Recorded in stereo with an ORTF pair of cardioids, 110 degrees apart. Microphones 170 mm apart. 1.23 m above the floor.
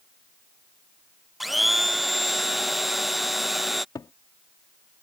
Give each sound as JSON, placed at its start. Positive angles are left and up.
{"t": 1.4, "sound": "a blender", "azimuth_deg": 0}
{"t": 4.0, "sound": "a cupboard door", "azimuth_deg": 20}